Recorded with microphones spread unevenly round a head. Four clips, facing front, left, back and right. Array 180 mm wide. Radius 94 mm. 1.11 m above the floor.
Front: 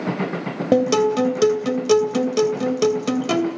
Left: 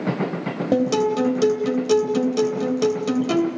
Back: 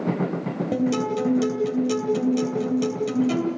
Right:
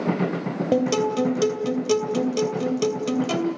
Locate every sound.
0.7 s a guitar: 5° left, 2.5 m